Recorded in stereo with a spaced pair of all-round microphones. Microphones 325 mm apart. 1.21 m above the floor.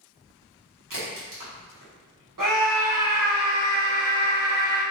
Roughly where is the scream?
Right.